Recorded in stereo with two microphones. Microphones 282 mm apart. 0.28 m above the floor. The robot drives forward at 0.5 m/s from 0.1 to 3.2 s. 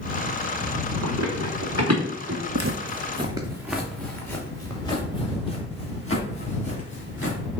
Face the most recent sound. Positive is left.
turn(degrees=30)  # may be behind; listen again after turning